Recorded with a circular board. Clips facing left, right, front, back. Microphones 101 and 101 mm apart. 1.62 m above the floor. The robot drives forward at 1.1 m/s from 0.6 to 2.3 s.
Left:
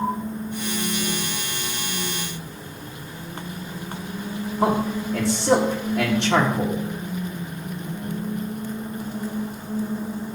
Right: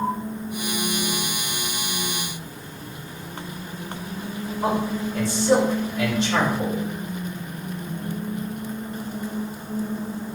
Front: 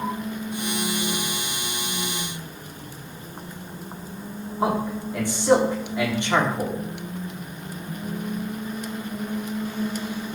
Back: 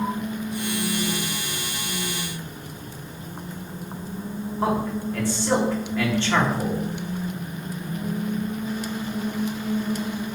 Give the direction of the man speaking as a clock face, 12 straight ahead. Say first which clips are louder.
Left 2 dB, even; 10 o'clock.